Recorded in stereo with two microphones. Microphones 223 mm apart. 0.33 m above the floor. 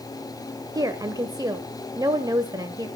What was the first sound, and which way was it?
A woman speaking, 15° right (ahead or behind).